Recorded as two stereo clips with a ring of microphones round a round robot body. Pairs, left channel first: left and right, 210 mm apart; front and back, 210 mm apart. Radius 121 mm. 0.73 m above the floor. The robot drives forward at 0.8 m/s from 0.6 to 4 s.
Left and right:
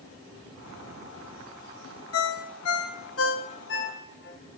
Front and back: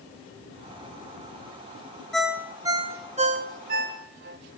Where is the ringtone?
90° left, 1.3 m; by 4.4 s 140° left, 1.9 m.